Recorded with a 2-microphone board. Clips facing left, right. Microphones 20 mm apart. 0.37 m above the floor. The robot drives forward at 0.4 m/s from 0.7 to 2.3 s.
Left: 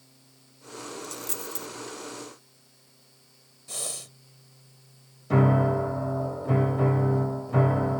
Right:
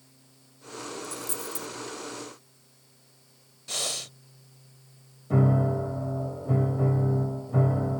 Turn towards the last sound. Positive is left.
turn(degrees=55)  # may be behind; listen again after turning